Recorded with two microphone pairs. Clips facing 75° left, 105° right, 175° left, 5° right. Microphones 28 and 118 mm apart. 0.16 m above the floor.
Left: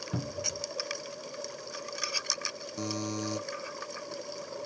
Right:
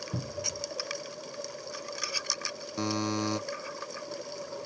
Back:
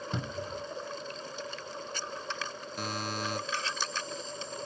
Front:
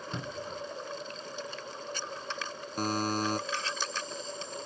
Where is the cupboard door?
100° left, 0.6 m.